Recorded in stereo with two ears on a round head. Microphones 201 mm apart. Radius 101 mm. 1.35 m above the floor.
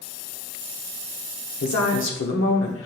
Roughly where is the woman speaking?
Left.